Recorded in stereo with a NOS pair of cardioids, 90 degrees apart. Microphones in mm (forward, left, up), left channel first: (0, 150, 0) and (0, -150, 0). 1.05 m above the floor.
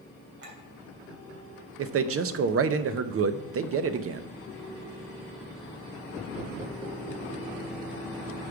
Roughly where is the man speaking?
Ahead right.